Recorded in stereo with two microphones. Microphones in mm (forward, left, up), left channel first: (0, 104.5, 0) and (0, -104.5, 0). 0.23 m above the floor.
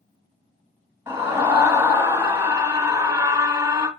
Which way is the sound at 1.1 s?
10° right (ahead or behind).